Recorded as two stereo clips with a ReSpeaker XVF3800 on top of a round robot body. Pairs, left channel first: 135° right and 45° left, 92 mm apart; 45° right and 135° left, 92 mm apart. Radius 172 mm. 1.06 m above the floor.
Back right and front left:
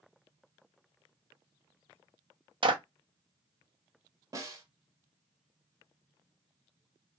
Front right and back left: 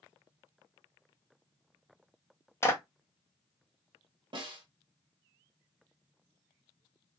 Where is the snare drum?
100° left, 1.2 m.